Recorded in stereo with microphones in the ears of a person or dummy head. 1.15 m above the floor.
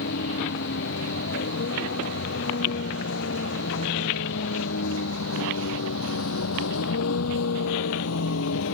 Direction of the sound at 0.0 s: 60° left (ahead or behind).